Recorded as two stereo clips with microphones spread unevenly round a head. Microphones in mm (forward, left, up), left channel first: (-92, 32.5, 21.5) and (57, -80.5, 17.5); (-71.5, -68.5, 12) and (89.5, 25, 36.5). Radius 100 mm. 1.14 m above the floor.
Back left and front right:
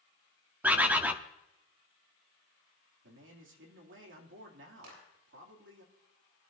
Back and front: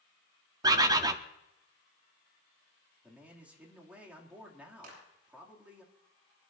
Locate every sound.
0.6 s a bird: 40° left, 0.6 m
3.0 s a man speaking: 55° right, 2.5 m
4.8 s a clap: 10° right, 8 m